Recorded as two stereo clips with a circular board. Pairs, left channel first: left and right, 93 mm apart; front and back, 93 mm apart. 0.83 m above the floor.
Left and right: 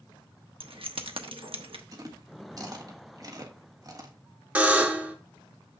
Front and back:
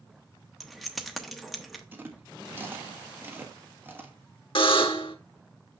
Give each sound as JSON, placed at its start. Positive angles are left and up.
{"t": 0.6, "sound": "keys jangling", "azimuth_deg": -90, "distance_m": 1.0}
{"t": 1.9, "sound": "chewing", "azimuth_deg": -120, "distance_m": 1.3}
{"t": 4.5, "sound": "a buzzer", "azimuth_deg": -15, "distance_m": 1.0}